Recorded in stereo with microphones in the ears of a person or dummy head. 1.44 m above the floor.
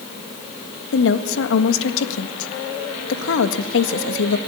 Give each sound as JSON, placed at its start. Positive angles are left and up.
{"t": 0.9, "sound": "a woman speaking", "side_deg": 70, "distance_m": 1.7}